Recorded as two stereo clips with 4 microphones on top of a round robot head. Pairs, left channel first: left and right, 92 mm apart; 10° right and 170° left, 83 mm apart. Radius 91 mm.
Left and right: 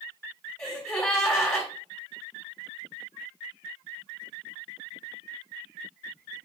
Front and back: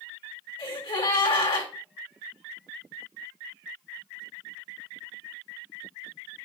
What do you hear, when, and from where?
0.6 s a gasp: 15° left, 1.9 m